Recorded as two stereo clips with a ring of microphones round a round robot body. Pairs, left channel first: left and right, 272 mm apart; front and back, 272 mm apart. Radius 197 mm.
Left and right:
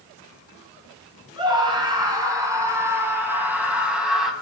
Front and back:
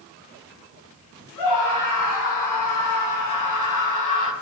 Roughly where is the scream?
Ahead.